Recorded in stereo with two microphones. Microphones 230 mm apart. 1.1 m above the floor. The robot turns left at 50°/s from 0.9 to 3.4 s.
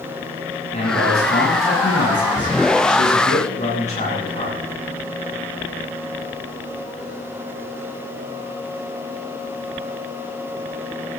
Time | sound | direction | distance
0.7 | a man speaking | 155° left | 9 m